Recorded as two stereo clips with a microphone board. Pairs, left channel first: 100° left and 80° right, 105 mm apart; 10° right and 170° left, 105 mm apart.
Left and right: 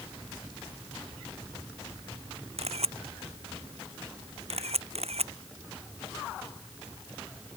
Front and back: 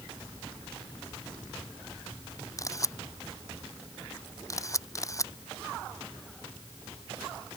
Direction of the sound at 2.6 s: 70° right.